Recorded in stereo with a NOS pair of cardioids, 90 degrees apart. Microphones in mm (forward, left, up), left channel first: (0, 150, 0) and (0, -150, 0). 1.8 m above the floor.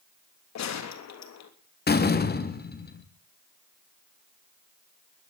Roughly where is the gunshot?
Ahead left.